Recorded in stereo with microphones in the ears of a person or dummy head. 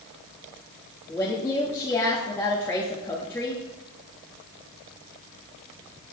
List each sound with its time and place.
1.1 s a woman speaking: 15° left (ahead or behind), 1.5 m